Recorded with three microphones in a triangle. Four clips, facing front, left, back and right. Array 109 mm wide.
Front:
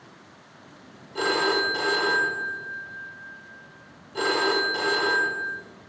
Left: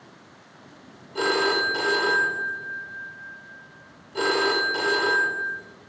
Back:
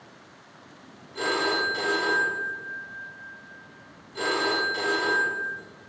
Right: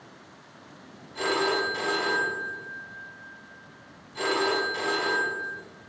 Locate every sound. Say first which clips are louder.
1.1 s a phone ringing: left 3 dB, front 2 dB; 60° left, 1.7 m